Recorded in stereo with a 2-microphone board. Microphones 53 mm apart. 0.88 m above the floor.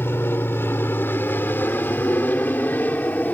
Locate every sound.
0.0 s an aircraft: 45° left (ahead or behind); by 3.3 s 30° left (ahead or behind)